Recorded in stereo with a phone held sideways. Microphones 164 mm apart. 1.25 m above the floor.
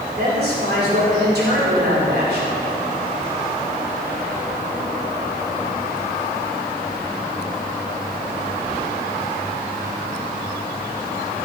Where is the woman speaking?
75° right (ahead or behind), 4.5 m; by 2.5 s 85° right, 4.5 m.